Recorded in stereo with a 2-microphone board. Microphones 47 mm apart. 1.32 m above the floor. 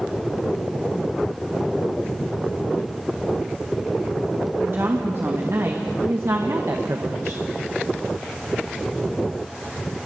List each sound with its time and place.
4.6 s a woman speaking: 60° right (ahead or behind), 2.5 m; by 7.4 s 75° right (ahead or behind), 1.4 m